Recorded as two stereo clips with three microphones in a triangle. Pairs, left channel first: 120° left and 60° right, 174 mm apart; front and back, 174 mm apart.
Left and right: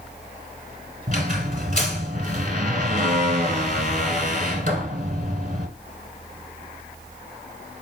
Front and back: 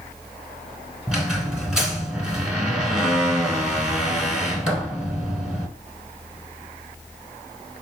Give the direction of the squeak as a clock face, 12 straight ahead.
3 o'clock.